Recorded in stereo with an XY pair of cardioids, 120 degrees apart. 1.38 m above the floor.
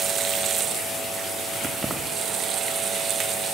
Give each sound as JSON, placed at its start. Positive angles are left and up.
{"t": 1.6, "sound": "keys jangling", "azimuth_deg": -20, "distance_m": 2.5}